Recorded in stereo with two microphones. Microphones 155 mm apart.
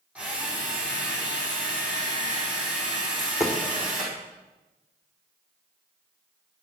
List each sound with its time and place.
0.1 s a drill: 10° right (ahead or behind), 6 m
3.0 s a dropped coin: centre (ahead or behind), 3.5 m